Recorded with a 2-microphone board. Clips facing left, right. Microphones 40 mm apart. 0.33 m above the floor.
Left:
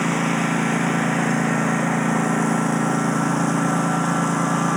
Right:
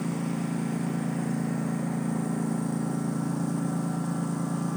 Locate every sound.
0.0 s a lawn mower: 75° left (ahead or behind)